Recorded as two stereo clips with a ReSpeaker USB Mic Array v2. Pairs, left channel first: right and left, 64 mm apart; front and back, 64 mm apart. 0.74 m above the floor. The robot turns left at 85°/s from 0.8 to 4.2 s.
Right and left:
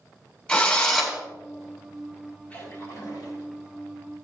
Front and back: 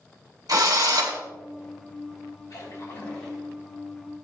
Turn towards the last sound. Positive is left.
turn(degrees=-165)